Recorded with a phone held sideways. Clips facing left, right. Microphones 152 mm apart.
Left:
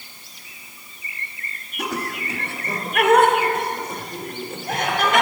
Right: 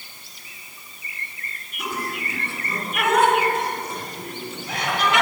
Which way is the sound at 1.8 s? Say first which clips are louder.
Left 2 dB; 75° left (ahead or behind).